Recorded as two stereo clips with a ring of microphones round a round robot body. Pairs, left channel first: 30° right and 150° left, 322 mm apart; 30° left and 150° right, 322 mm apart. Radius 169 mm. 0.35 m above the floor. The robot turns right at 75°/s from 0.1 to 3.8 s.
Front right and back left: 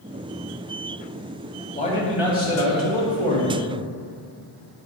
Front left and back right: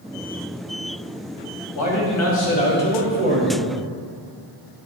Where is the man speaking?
30° left, 2.5 m; by 3.6 s 170° left, 2.5 m.